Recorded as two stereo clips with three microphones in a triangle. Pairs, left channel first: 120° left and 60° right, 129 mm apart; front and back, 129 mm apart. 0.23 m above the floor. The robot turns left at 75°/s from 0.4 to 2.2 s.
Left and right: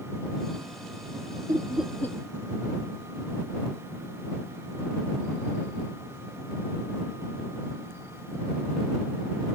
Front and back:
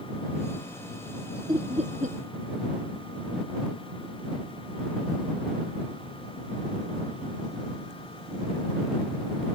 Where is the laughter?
125° right; by 2.2 s 175° right.